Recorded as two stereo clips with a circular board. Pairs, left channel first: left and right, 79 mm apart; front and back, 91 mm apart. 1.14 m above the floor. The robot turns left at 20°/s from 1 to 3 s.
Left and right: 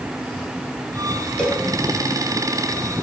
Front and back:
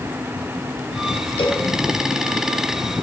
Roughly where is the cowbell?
Ahead.